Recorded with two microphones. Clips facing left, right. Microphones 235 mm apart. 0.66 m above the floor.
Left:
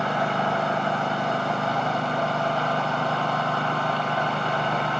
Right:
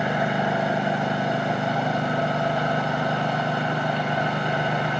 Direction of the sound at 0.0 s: 15° right (ahead or behind).